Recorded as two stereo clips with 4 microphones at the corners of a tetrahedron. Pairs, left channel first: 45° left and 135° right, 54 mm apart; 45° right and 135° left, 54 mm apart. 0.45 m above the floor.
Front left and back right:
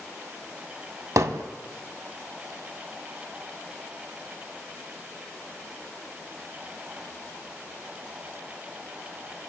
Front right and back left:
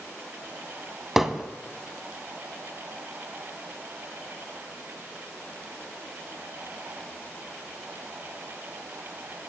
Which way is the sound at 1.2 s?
140° right.